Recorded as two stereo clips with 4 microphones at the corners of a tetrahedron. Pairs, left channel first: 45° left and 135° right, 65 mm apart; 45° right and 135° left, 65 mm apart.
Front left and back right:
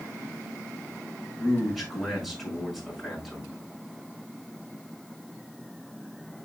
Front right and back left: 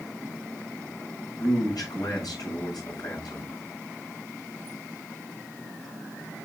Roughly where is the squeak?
No squeak in this recording.